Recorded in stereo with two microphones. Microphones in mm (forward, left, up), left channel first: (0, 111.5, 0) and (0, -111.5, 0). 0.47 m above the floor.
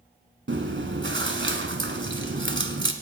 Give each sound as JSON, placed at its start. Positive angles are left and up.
{"t": 0.5, "sound": "chewing", "side_deg": -60, "distance_m": 1.4}